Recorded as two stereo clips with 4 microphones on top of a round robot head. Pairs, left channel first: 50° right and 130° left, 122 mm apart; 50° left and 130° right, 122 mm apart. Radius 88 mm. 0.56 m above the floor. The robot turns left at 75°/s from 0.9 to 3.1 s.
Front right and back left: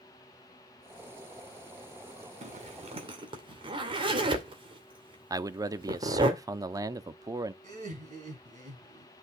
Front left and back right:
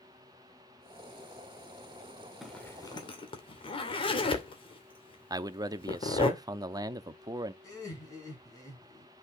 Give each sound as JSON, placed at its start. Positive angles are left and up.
{"t": 2.4, "sound": "a zipper", "azimuth_deg": 140, "distance_m": 2.5}
{"t": 5.3, "sound": "a man speaking", "azimuth_deg": 180, "distance_m": 0.9}
{"t": 7.6, "sound": "laughter", "azimuth_deg": 110, "distance_m": 7.5}